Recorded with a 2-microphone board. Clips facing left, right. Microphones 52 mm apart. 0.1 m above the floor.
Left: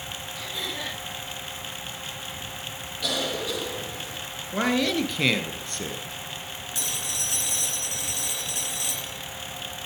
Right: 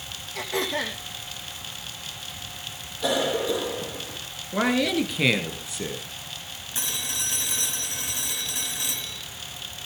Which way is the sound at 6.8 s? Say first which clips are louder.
Right 2 dB; 30° right (ahead or behind).